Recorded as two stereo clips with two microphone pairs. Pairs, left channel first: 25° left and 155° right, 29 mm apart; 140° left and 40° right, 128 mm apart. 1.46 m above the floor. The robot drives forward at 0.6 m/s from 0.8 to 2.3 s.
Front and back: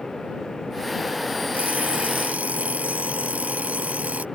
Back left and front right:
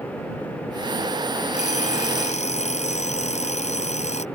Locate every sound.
1.5 s an alarm clock: 170° left